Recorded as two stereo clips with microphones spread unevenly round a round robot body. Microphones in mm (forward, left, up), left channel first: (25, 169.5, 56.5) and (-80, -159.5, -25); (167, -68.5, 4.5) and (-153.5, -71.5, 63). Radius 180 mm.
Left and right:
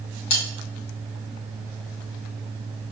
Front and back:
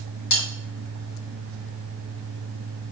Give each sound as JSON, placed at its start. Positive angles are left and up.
{"t": 0.3, "sound": "cutlery clinking", "azimuth_deg": 55, "distance_m": 1.6}